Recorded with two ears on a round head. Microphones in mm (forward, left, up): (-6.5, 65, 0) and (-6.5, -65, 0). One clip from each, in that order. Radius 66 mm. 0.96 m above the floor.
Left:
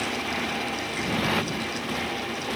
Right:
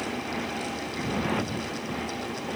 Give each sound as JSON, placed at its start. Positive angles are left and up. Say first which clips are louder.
{"t": 0.0, "sound": "a motorcycle", "louder": "left 4 dB", "side_deg": 75}